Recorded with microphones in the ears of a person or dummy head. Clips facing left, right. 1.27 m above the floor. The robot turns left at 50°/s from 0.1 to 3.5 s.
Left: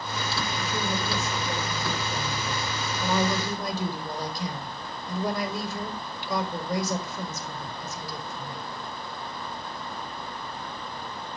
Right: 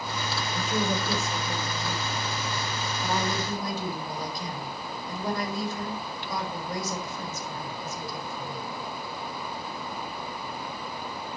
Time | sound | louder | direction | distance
0.5 | a woman speaking | right 5 dB | 150° right | 4 m